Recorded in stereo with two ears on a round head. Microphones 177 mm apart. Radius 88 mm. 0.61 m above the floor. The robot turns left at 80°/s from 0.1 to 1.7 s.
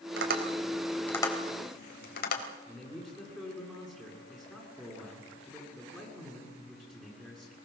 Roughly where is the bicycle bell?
I don't hear a bicycle bell.